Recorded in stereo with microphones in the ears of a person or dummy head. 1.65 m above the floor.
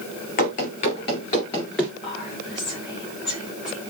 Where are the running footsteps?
40° left (ahead or behind), 2 m; by 1.9 s centre (ahead or behind), 1.7 m.